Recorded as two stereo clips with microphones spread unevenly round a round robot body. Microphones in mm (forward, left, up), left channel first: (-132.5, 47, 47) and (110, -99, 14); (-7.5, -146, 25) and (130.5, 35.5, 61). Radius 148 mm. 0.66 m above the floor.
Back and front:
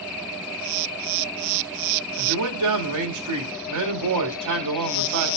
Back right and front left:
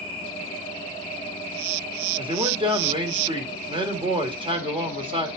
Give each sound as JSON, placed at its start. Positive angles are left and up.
{"t": 2.2, "sound": "a man speaking", "azimuth_deg": -20, "distance_m": 2.0}